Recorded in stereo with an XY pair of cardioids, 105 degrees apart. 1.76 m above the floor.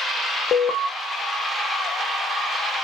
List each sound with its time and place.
0.5 s an alarm: 60° left, 0.9 m